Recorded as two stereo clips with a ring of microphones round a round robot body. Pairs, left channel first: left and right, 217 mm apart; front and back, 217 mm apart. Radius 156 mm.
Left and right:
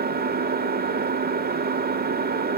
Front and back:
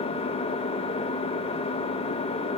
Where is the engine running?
60° right, 1.3 m.